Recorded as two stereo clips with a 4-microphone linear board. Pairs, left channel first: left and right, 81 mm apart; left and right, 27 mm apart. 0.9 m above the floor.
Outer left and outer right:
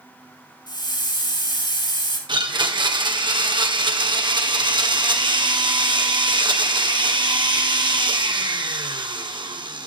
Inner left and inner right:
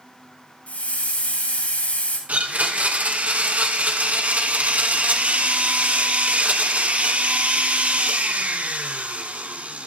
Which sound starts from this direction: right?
A blender, at 2.3 s.